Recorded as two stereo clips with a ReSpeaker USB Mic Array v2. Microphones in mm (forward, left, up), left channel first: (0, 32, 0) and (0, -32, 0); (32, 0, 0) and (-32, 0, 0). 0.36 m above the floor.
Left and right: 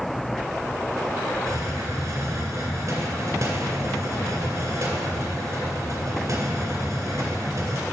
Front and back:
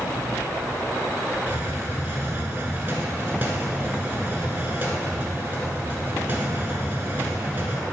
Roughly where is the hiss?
Behind right.